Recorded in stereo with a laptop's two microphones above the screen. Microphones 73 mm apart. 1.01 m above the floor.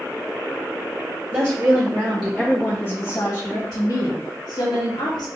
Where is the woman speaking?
25° right (ahead or behind), 1.5 m; by 5.2 s 85° left, 2 m.